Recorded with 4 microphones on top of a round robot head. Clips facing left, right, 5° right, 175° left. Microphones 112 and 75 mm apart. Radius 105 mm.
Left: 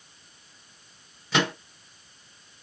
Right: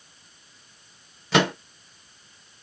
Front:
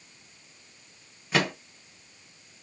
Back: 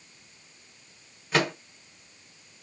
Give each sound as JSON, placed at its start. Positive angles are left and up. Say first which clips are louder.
{"t": 1.3, "sound": "a microwave", "louder": "right 4 dB, back 1 dB", "azimuth_deg": -95, "distance_m": 1.4}